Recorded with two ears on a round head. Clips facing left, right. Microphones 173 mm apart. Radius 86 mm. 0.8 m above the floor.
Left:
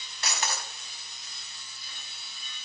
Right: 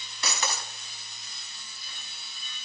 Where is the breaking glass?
75° right (ahead or behind), 1.9 m.